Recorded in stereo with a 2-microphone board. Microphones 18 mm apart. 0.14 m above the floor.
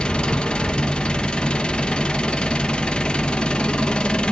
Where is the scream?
I don't hear a scream.